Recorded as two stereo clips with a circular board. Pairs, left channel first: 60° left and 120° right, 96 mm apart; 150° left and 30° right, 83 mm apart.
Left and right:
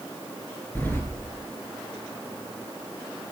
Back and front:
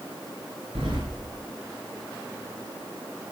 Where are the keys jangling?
15° right, 3.5 m.